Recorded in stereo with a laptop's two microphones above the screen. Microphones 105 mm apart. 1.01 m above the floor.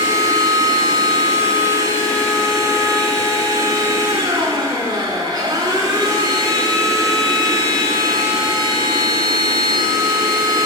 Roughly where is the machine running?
Right.